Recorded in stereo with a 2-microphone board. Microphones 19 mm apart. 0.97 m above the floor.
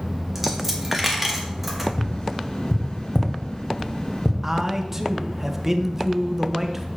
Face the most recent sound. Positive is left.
turn(degrees=-20)  # may be behind; listen again after turning